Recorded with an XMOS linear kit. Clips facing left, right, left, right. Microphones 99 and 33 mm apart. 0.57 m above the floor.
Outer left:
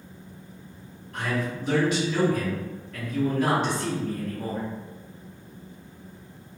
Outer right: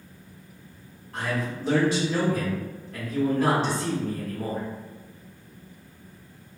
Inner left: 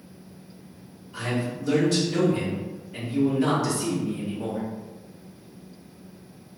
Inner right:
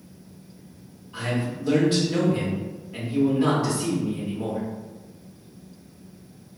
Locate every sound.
1.1 s a man speaking: 35° right (ahead or behind), 1.6 m